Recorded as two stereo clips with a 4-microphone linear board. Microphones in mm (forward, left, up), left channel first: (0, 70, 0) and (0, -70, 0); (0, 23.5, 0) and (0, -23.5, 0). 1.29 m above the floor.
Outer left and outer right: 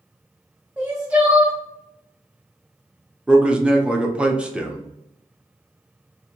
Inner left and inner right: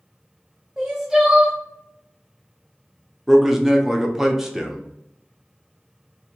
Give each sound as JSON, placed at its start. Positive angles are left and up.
{"t": 0.8, "sound": "crying", "side_deg": -10, "distance_m": 0.7}
{"t": 3.3, "sound": "a man speaking", "side_deg": -10, "distance_m": 0.5}